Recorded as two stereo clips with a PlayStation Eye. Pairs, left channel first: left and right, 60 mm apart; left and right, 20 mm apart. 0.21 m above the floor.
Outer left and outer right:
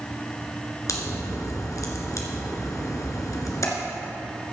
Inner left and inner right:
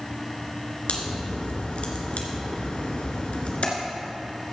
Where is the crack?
65° left (ahead or behind), 2.5 m.